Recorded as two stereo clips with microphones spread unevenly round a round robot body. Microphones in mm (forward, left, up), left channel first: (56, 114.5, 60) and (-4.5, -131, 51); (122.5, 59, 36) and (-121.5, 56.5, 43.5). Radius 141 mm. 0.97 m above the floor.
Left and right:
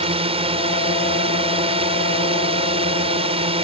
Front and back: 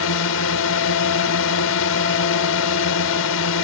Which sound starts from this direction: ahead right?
A drone, at 0.0 s.